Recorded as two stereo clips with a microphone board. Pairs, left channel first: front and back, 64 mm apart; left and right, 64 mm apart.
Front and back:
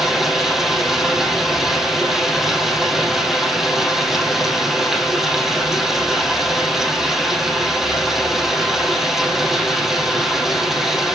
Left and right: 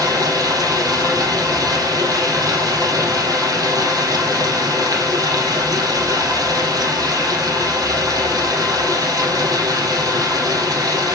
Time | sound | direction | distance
0.0 | running water | 95° right | 3 m